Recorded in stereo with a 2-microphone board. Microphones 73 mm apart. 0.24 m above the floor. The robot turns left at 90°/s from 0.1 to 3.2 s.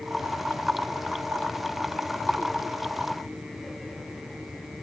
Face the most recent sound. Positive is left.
No sound to turn to.